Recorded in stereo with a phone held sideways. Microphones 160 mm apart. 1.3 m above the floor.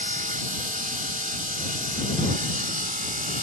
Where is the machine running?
65° right (ahead or behind).